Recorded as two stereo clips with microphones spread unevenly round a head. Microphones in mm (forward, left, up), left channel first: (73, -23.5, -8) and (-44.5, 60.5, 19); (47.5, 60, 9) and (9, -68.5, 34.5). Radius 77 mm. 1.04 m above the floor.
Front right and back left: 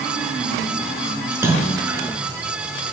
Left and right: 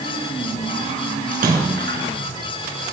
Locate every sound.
1.3 s a splash: 145° right, 4.5 m